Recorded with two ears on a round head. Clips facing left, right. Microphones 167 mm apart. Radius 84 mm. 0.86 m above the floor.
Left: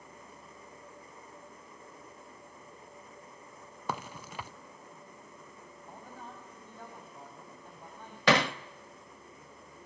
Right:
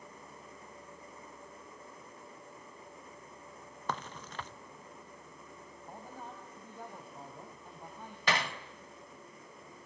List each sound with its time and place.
3.9 s a crack: 10° left (ahead or behind), 0.8 m
5.9 s a man speaking: 10° right (ahead or behind), 5 m
8.3 s hammering: 55° left (ahead or behind), 0.9 m